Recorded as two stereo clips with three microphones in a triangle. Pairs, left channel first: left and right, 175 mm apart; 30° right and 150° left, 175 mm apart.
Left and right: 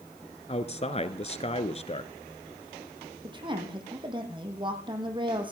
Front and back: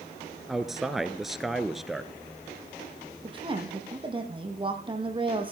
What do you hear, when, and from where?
0.5 s a man speaking: 60° left, 1.4 m
3.2 s a woman speaking: 150° right, 4.5 m